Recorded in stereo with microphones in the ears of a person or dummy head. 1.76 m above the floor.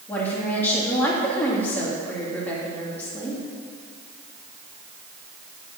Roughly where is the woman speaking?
Centre.